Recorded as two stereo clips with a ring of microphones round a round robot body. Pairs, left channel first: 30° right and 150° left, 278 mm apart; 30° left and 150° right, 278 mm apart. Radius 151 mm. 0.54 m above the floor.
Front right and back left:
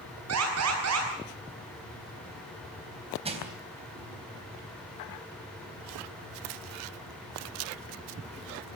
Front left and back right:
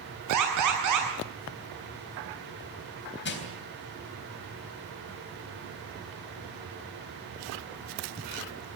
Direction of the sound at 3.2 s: 80° left.